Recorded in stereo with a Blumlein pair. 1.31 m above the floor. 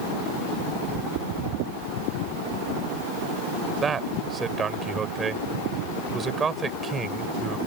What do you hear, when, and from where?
3.8 s a man speaking: 20° right